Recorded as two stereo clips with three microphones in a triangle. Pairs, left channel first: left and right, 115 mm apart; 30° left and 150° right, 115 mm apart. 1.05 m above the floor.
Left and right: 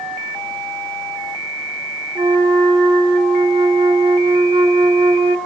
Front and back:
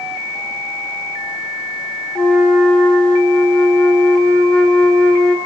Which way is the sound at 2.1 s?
50° right.